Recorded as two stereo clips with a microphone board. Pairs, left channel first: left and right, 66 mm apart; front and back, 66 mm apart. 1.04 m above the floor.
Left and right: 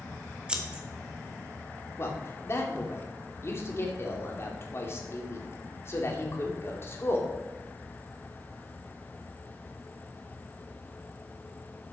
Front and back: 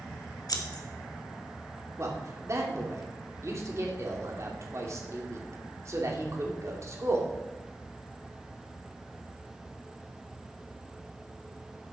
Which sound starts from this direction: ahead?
Scissors, at 0.5 s.